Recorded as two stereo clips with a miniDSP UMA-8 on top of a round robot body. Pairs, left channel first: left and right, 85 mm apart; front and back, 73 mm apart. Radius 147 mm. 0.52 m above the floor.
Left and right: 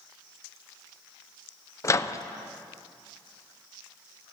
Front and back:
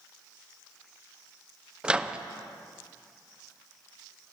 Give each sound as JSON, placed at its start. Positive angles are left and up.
{"t": 1.8, "sound": "a microwave", "azimuth_deg": 115, "distance_m": 0.6}